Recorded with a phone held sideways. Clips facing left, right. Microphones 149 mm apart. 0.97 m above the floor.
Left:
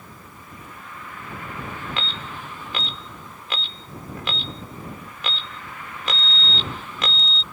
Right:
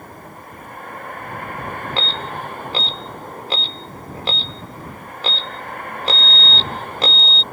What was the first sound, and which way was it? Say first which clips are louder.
A vehicle: right 7 dB; 55° right (ahead or behind).